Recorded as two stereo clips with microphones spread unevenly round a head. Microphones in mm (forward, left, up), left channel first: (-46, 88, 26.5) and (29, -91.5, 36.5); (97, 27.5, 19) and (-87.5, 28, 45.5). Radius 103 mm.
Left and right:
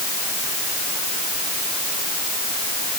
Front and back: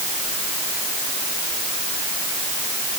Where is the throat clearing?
I don't hear throat clearing.